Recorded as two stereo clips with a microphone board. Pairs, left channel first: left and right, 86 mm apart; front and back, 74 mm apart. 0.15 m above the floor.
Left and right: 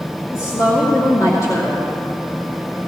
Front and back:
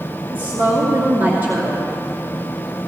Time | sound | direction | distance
0.3 | a woman speaking | 130° left | 2.5 m